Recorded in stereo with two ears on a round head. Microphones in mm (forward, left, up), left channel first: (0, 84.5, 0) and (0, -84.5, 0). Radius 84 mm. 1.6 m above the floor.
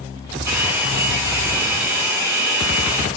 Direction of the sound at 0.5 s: 10° right (ahead or behind).